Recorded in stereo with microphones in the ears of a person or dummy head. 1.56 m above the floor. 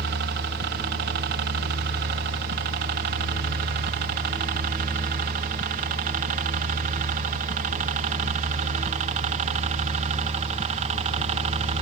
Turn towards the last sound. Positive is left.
turn(degrees=-35)  # may be behind; listen again after turning